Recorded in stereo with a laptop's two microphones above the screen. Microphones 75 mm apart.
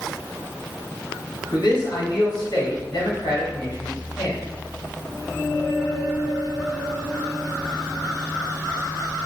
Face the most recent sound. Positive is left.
turn(degrees=60)  # may be behind; listen again after turning